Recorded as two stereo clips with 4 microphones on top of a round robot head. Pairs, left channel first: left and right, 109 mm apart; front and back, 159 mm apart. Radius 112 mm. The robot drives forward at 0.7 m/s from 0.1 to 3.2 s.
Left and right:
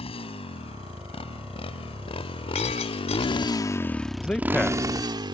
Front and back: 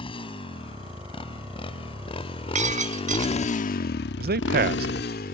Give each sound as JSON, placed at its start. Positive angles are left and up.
{"t": 0.0, "sound": "a motorcycle", "azimuth_deg": 60}
{"t": 2.5, "sound": "breaking glass", "azimuth_deg": 140}
{"t": 4.2, "sound": "a man speaking", "azimuth_deg": 170}